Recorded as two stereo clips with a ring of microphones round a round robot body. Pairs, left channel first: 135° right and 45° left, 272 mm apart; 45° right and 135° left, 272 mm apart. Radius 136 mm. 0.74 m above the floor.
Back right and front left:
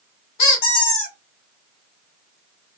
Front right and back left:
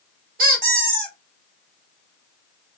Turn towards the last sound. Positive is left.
turn(degrees=-165)